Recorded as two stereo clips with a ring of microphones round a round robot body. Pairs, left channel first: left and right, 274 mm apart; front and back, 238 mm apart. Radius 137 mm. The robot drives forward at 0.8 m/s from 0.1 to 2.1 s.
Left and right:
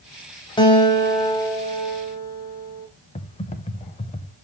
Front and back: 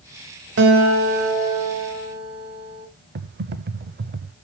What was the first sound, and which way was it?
A guitar, 160° left.